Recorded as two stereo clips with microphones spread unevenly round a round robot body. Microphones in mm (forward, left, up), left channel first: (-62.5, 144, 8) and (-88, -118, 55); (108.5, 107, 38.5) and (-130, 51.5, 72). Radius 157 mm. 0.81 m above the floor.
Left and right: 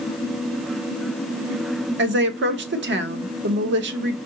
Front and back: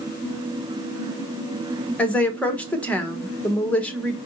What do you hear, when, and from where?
2.0 s a woman speaking: 60° right, 1.0 m